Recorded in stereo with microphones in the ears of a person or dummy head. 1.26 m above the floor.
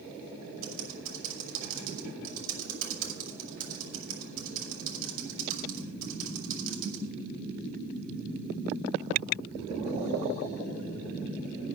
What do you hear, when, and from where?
0.6 s typing on a keyboard: 45° right (ahead or behind), 2 m